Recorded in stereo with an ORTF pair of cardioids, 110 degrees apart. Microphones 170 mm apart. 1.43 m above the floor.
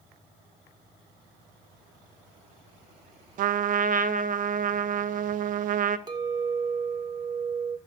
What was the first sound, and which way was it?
A trumpet, 55° right.